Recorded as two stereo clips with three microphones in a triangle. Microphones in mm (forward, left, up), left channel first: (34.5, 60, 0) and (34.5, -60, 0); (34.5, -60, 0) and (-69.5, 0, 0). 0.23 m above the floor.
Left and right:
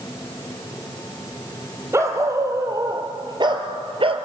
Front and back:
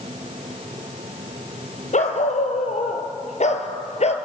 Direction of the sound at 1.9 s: 25° right.